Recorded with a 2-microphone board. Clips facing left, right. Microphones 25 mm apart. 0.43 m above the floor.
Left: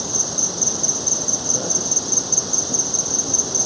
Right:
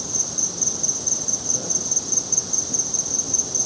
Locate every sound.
0.0 s an insect: 25° left (ahead or behind)